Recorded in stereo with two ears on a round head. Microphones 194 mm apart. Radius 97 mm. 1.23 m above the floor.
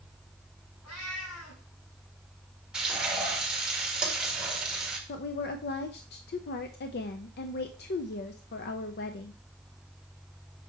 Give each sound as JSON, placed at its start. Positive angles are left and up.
{"t": 0.8, "sound": "a cat meowing", "side_deg": 80, "distance_m": 4.0}
{"t": 2.7, "sound": "frying", "side_deg": -5, "distance_m": 1.7}
{"t": 5.1, "sound": "a woman speaking", "side_deg": 50, "distance_m": 0.5}